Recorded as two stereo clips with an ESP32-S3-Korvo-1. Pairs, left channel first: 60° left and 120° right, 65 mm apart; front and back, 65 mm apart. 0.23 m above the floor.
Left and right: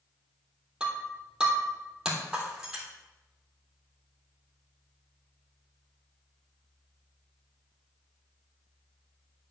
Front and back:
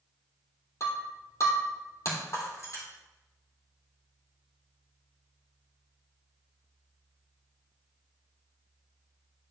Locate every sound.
0.8 s breaking glass: 40° right, 3 m